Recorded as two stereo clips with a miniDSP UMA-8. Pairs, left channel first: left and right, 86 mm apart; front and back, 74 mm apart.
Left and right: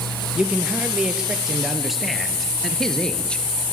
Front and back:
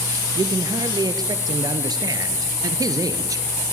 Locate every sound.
0.3 s a man speaking: 165° right, 3.5 m; by 3.5 s 165° left, 2.5 m